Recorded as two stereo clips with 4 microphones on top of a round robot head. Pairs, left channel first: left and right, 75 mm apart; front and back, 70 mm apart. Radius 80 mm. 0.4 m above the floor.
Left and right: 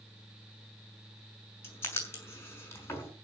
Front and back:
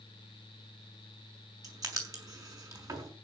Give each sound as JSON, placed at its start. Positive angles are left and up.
{"t": 1.6, "sound": "writing", "azimuth_deg": 145, "distance_m": 6.0}